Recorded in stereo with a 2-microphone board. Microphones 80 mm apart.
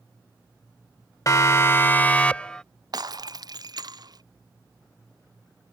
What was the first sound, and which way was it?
A siren, 40° left (ahead or behind).